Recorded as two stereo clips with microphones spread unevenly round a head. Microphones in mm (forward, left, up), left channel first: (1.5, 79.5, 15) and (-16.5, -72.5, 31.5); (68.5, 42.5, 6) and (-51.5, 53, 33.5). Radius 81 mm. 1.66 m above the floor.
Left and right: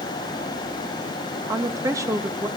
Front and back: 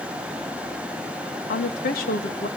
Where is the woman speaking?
25° right, 2.5 m.